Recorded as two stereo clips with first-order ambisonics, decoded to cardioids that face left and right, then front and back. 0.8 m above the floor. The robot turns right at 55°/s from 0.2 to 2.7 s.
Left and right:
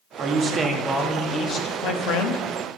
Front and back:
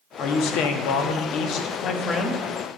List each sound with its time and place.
0.2 s a man speaking: 40° right, 0.8 m; by 2.4 s 85° left, 0.8 m